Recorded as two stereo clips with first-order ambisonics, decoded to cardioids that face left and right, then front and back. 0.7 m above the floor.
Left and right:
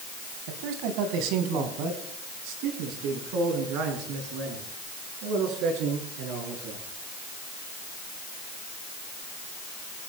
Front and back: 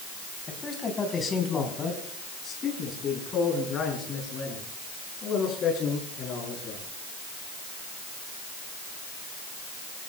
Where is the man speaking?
70° right, 4 m; by 6.8 s 60° right, 8.5 m.